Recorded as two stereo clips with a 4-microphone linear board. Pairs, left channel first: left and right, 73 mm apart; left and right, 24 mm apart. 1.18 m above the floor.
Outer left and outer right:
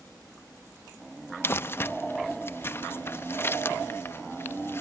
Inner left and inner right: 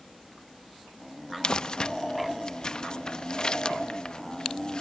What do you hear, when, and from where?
1.4 s crumpling: 30° left (ahead or behind), 0.5 m